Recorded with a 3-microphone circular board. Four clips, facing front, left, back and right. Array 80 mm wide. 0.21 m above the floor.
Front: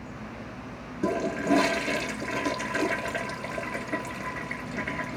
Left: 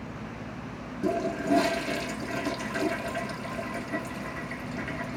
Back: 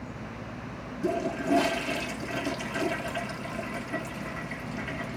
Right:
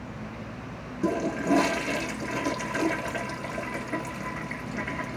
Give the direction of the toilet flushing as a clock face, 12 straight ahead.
1 o'clock.